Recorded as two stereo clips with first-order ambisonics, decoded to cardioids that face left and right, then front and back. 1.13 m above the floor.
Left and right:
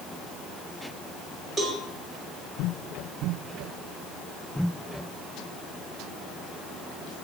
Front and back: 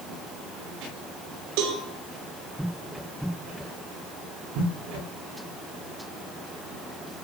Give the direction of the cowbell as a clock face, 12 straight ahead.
6 o'clock.